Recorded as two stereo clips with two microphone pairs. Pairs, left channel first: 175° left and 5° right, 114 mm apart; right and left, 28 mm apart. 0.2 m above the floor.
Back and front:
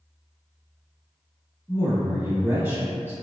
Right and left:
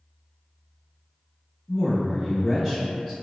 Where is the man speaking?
15° right, 1.0 m.